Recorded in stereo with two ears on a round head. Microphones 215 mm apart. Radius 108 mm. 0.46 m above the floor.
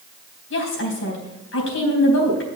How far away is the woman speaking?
About 3.5 m.